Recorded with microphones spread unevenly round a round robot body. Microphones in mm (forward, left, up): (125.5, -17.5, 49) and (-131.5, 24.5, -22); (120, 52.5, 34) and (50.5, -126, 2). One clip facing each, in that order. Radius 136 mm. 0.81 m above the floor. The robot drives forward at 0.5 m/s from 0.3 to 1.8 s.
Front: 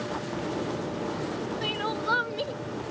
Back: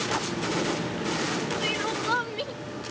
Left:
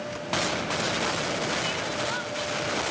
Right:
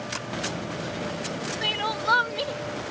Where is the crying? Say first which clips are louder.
Back 1 dB, even; 105° right; by 2.5 s 110° right.